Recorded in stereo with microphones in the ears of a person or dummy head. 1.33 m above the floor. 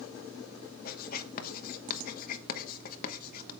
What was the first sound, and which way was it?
Writing, 50° left (ahead or behind).